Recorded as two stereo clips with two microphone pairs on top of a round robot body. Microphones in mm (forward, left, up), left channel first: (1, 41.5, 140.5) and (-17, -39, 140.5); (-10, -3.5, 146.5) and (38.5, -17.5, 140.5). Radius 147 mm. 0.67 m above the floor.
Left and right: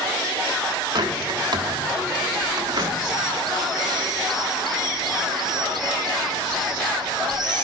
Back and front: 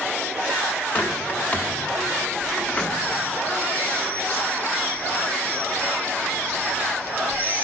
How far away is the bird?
About 1.3 m.